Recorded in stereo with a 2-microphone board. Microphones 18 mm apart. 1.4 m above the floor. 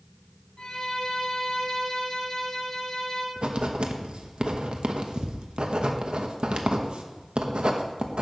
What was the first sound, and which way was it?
A violin, 35° left (ahead or behind).